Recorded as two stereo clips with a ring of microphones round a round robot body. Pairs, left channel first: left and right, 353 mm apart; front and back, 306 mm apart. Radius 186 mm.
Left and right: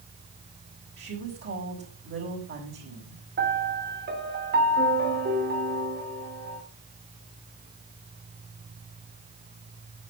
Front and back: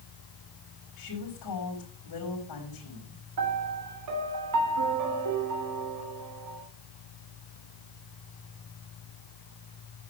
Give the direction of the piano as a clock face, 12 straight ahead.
5 o'clock.